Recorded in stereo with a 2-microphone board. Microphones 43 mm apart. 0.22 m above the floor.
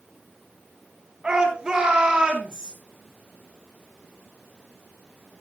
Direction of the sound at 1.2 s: 20° right (ahead or behind).